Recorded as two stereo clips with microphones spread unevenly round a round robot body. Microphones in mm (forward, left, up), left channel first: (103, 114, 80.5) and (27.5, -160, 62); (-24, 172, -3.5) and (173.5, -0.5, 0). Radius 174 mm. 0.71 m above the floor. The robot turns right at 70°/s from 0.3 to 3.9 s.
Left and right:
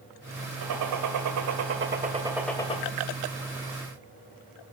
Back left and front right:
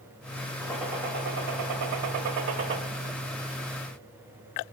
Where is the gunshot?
145° right, 0.9 m; by 2.8 s 10° left, 0.9 m.